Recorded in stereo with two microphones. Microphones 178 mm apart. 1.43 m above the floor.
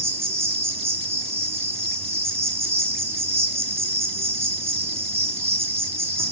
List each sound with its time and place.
0.0 s an insect: 15° right (ahead or behind), 1.4 m